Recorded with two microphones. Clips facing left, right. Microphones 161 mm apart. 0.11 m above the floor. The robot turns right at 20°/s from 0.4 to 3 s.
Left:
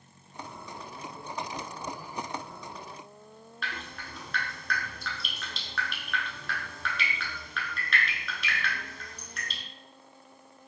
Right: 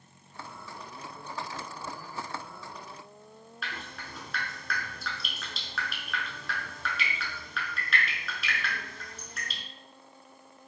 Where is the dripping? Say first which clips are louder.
Left 1 dB; centre (ahead or behind), 0.8 m.